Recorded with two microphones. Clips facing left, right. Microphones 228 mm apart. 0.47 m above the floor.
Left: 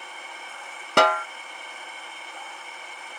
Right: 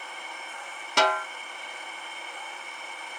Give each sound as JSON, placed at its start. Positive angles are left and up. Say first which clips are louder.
{"t": 1.0, "sound": "a snare drum", "louder": "left 5 dB", "side_deg": 60, "distance_m": 0.5}